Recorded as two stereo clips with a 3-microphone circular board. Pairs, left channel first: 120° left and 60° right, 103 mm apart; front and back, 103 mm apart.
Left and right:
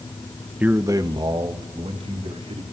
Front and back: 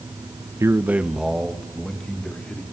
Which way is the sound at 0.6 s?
130° right.